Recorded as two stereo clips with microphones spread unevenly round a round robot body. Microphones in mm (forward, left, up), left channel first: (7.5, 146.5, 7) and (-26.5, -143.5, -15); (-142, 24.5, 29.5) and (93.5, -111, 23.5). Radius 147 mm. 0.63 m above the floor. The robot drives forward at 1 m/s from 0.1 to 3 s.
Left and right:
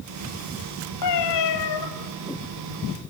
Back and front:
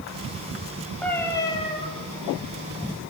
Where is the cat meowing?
65° left, 2.5 m; by 1.9 s 85° left, 2.5 m.